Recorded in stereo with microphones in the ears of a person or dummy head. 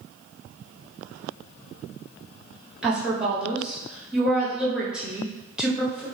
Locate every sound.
2.8 s a woman speaking: centre (ahead or behind), 1.2 m